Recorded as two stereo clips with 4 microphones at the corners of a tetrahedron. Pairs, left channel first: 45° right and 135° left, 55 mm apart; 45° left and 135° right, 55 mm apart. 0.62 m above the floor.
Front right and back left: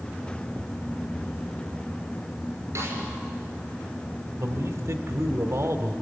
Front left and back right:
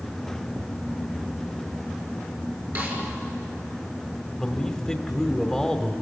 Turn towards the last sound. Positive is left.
turn(degrees=125)